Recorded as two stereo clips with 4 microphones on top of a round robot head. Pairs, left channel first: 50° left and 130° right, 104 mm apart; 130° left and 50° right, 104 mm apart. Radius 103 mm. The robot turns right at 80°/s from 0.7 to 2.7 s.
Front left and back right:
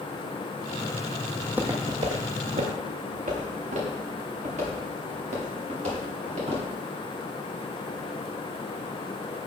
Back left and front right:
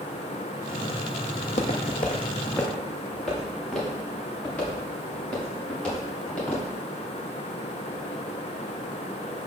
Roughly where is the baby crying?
I don't hear a baby crying.